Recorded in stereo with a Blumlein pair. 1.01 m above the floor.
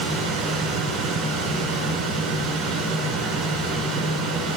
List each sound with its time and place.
0.0 s a machine running: 30° right, 3.5 m